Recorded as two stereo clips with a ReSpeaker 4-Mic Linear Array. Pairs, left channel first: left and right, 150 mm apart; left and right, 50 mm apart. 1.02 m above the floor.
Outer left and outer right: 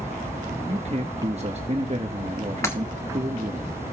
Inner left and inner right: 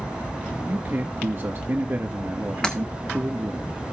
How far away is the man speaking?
About 1.1 m.